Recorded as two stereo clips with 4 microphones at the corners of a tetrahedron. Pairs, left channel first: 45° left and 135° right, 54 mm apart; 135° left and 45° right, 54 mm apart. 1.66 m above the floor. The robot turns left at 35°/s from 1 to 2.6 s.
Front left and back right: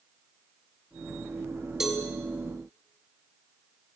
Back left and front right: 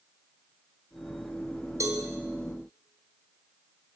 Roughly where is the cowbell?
Ahead right.